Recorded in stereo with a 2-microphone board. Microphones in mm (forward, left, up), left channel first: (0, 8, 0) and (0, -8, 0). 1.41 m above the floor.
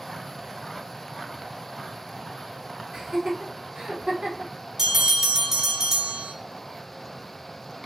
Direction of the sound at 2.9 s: 70° right (ahead or behind).